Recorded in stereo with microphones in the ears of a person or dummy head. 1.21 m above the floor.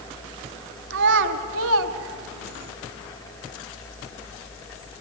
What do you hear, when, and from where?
0.9 s a child speaking: 65° right (ahead or behind), 1.7 m; by 2.7 s 70° right (ahead or behind), 1.3 m